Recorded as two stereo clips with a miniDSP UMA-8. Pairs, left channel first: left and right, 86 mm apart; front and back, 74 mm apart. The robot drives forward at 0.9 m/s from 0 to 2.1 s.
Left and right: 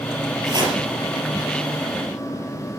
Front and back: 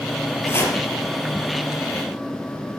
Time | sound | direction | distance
0.5 | chopping | 55° right | 4 m